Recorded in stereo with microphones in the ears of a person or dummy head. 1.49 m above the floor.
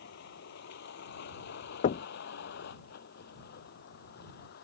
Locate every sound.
0.0 s a vehicle: 60° left (ahead or behind); by 4.7 s 55° left (ahead or behind)
1.8 s knocking: 40° left (ahead or behind)